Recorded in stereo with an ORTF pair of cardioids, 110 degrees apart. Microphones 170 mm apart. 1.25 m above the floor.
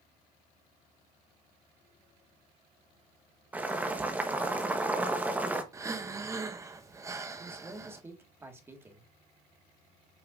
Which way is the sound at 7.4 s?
15° right.